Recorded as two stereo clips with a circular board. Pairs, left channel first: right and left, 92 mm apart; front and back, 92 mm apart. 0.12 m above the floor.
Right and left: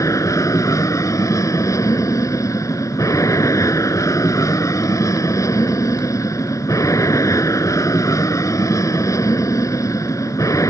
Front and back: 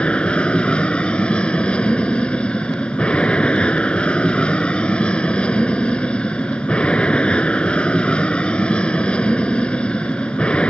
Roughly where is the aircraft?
Right.